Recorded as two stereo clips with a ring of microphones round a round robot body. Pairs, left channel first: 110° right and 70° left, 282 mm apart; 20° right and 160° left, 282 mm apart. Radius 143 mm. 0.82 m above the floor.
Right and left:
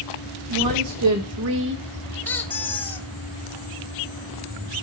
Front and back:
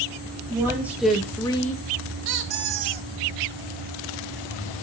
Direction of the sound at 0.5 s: 80° left.